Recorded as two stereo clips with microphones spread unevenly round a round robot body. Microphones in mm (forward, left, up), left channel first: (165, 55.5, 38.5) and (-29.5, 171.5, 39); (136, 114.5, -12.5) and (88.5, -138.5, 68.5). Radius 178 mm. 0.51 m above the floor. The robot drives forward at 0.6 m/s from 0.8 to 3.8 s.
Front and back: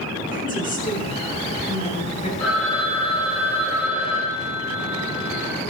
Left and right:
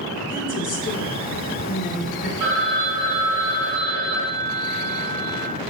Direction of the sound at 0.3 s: 20° left.